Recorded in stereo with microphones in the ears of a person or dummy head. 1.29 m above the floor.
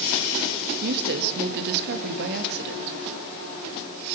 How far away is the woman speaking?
About 2.5 m.